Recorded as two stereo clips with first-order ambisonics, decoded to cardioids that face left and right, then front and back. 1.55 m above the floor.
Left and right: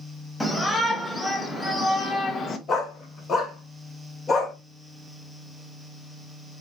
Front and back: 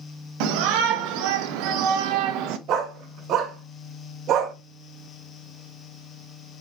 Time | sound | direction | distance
0.4 | a shout | 175° left | 2 m
2.7 | a dog barking | 150° left | 1.7 m